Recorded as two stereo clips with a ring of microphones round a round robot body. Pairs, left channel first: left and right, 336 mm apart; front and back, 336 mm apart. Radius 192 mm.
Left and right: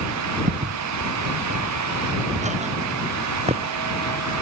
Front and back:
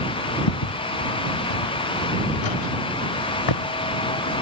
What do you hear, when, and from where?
0.5 s footsteps: 30° right; by 4.4 s 15° right